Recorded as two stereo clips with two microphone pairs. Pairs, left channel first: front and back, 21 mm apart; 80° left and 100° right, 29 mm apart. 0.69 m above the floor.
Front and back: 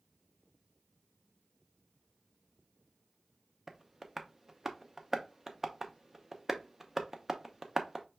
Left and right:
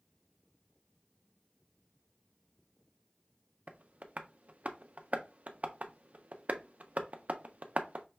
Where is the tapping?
110° right, 0.6 m.